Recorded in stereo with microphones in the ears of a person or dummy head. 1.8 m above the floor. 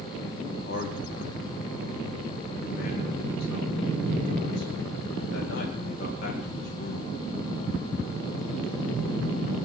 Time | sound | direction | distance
0.4 | a man speaking | 60° left (ahead or behind) | 2.5 m